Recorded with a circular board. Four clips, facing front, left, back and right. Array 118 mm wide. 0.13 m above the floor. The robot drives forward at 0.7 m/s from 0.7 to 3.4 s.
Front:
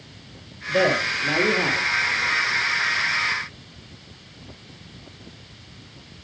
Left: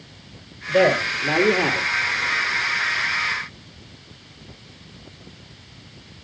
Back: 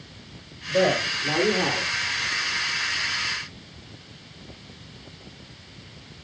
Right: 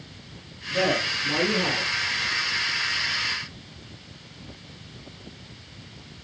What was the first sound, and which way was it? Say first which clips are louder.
A man speaking: left 7 dB, front 1 dB; 75° left.